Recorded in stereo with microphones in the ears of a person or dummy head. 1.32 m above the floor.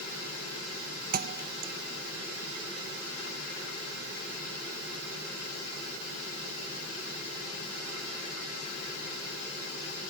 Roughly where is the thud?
Right.